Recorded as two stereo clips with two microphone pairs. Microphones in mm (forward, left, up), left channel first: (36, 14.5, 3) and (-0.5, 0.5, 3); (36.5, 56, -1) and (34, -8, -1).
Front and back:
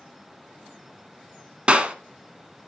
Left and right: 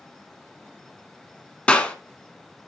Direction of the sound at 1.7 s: 150° left.